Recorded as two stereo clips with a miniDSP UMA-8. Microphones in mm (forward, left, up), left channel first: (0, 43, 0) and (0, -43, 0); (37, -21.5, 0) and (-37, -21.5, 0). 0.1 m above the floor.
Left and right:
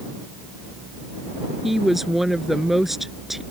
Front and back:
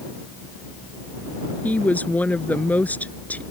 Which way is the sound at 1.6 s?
5° right.